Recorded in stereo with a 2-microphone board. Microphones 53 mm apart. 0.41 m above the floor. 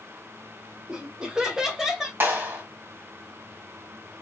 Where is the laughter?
20° right (ahead or behind), 1.5 m; by 2.1 s 10° right (ahead or behind), 1.8 m.